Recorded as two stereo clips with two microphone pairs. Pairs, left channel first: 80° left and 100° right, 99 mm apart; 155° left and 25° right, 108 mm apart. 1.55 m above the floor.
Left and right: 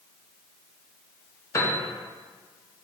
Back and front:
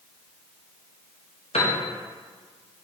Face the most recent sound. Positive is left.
turn(degrees=140)